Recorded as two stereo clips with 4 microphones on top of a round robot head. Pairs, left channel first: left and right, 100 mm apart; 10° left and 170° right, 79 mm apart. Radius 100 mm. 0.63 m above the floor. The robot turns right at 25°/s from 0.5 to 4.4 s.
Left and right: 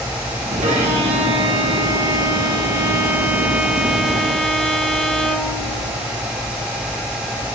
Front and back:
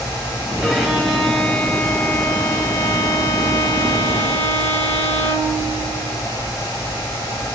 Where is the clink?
I don't hear a clink.